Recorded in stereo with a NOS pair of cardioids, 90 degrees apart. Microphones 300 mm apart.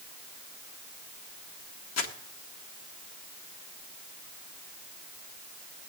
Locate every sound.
2.0 s crumpling: 55° left, 1.5 m